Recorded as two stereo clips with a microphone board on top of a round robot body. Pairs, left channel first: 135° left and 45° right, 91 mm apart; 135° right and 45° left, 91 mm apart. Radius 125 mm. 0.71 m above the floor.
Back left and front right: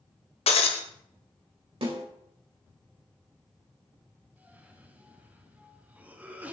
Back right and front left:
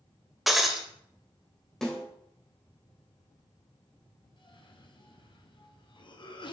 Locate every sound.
0.5 s breaking glass: 135° left, 1.2 m
1.8 s a snare drum: 50° right, 4 m
4.4 s a cough: 115° right, 2 m